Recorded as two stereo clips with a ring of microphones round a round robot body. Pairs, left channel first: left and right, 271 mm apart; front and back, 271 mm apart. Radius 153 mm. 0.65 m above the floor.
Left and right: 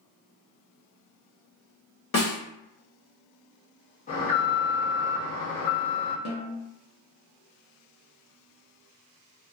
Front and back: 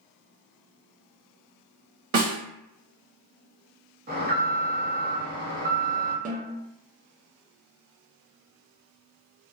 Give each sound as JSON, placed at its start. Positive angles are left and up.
{"t": 2.1, "sound": "a snare drum", "azimuth_deg": 140, "distance_m": 1.2}
{"t": 4.1, "sound": "an alarm", "azimuth_deg": 140, "distance_m": 1.0}
{"t": 6.2, "sound": "a snare drum", "azimuth_deg": 120, "distance_m": 0.7}